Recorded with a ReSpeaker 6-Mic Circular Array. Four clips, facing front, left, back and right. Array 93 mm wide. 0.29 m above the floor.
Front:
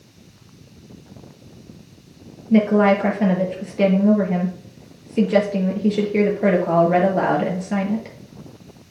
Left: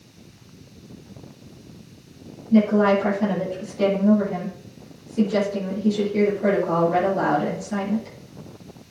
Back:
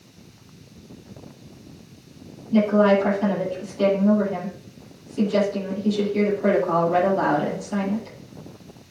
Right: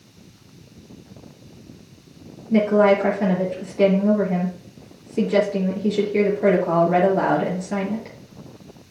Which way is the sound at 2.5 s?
25° right.